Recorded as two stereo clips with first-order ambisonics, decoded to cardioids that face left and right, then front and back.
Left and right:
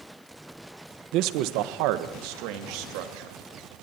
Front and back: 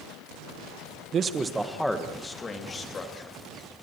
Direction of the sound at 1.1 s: 125° right.